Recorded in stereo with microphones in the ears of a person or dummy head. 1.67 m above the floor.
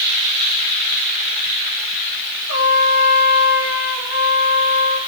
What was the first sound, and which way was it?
A trumpet, 85° left.